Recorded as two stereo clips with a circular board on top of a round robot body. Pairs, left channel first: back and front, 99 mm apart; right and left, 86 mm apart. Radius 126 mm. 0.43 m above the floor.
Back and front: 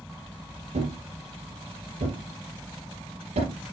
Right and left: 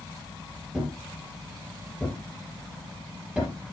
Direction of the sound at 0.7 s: 10° left.